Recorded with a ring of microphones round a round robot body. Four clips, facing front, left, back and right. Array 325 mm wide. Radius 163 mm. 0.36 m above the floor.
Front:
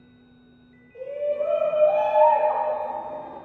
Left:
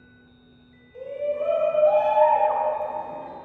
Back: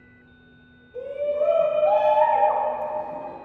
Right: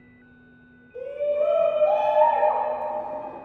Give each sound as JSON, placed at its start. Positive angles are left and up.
{"t": 0.9, "sound": "a shout", "azimuth_deg": -155, "distance_m": 3.0}